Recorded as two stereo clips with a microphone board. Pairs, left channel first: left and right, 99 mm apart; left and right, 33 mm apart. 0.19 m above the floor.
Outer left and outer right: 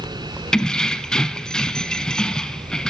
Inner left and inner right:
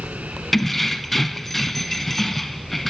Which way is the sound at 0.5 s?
5° left (ahead or behind).